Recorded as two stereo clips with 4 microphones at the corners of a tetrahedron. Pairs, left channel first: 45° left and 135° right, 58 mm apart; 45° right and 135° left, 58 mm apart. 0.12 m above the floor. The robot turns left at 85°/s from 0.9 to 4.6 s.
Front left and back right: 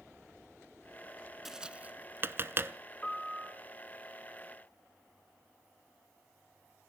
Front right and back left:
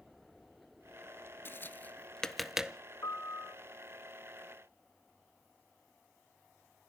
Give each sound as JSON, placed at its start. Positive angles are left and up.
{"t": 1.4, "sound": "tapping", "azimuth_deg": -55, "distance_m": 0.7}
{"t": 3.0, "sound": "a piano", "azimuth_deg": -30, "distance_m": 3.0}